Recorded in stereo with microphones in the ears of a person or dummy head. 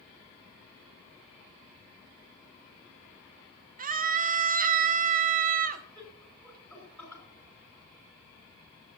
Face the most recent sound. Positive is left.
turn(degrees=10)  # may be behind; listen again after turning